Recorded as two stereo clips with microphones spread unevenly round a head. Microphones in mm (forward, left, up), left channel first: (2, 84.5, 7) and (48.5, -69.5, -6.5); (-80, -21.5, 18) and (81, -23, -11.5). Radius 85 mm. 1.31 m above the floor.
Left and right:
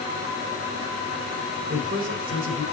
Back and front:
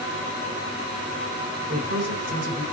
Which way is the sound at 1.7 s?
40° right.